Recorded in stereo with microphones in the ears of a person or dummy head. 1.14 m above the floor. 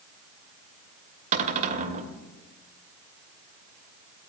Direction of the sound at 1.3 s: 40° right (ahead or behind).